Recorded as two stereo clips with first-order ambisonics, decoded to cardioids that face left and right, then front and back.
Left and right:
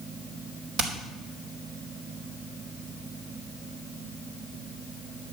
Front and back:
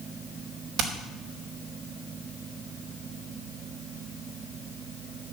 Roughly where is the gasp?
I don't hear a gasp.